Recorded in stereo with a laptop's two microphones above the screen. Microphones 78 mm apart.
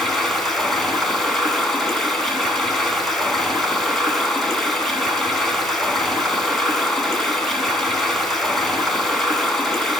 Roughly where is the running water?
Centre.